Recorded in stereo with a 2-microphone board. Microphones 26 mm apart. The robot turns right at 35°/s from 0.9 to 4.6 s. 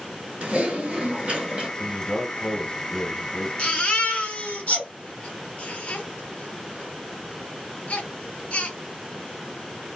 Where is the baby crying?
40° left (ahead or behind), 1.7 m; by 8.8 s 65° left (ahead or behind), 1.7 m.